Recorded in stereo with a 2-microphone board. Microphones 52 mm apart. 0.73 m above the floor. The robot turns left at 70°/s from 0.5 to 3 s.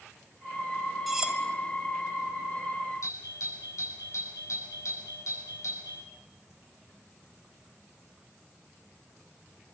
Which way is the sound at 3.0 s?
70° left (ahead or behind).